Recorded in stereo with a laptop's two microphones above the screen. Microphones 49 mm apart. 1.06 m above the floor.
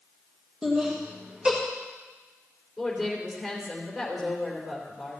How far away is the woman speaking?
About 3.5 m.